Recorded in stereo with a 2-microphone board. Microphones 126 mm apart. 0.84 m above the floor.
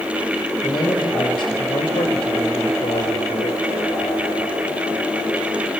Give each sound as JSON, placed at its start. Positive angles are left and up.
{"t": 0.6, "sound": "a man speaking", "side_deg": 30, "distance_m": 4.5}